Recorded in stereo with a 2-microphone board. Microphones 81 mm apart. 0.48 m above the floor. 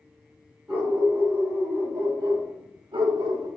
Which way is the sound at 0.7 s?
20° right (ahead or behind).